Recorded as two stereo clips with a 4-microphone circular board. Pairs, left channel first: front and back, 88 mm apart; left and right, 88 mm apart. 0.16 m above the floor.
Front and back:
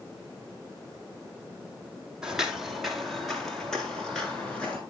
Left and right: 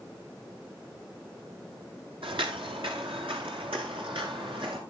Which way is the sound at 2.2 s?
95° right.